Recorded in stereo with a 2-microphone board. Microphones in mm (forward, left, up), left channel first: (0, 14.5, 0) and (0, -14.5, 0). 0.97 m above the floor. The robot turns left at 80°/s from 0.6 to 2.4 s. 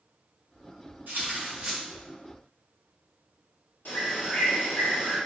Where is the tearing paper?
105° right, 1.2 m; by 1.8 s 160° right, 1.2 m.